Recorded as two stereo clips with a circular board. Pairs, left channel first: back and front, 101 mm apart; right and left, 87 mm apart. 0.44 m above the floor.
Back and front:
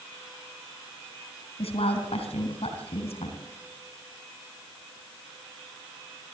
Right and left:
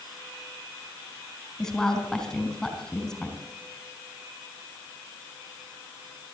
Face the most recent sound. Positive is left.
turn(degrees=-175)